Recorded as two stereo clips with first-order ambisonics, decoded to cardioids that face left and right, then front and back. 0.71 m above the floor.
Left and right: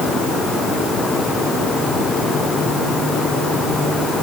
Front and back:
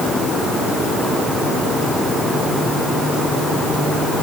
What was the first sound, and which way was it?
Only background noise.